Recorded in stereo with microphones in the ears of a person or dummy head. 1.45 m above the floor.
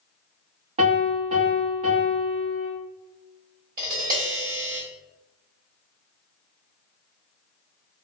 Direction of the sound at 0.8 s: 35° right (ahead or behind).